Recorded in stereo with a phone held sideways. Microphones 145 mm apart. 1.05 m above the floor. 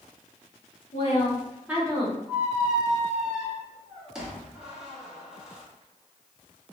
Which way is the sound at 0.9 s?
45° left (ahead or behind).